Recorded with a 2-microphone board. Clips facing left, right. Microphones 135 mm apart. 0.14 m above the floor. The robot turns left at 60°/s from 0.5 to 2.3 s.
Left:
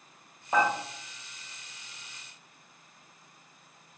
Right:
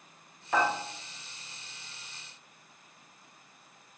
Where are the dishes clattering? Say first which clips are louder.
Left 2 dB; 20° left (ahead or behind), 1.7 m; by 0.7 s 10° left (ahead or behind), 1.7 m.